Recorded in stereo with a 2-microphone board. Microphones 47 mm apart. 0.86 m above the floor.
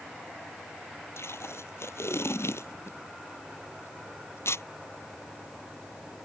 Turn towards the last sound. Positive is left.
turn(degrees=70)  # may be behind; listen again after turning